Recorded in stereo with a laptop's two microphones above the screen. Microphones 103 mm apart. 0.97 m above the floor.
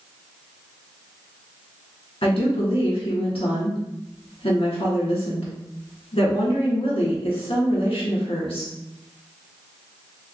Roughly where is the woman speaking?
Left.